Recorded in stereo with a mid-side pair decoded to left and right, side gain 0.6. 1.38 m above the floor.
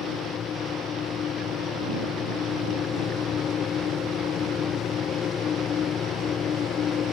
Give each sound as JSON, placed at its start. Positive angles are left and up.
{"t": 0.0, "sound": "a machine running", "azimuth_deg": 45}